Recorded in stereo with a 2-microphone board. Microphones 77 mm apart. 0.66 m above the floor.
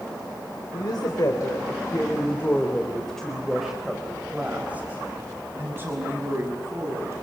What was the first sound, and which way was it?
A woman speaking, 60° left (ahead or behind).